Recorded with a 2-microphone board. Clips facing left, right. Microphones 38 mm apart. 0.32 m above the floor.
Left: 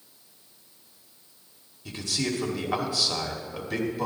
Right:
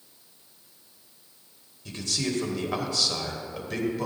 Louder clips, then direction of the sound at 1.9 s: Left 1 dB; 5° left (ahead or behind).